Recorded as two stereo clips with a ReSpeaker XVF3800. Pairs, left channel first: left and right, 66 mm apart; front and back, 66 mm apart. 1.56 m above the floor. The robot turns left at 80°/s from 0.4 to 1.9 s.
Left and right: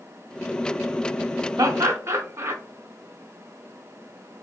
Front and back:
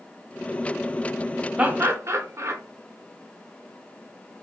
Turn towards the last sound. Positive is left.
turn(degrees=-130)